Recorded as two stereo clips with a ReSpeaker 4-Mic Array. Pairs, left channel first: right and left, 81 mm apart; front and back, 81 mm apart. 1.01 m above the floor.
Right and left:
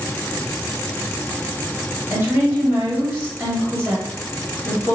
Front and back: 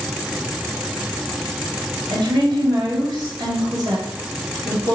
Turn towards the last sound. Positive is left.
turn(degrees=165)